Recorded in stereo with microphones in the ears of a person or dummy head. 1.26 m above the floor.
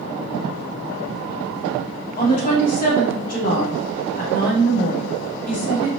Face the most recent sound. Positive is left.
turn(degrees=55)  # may be behind; listen again after turning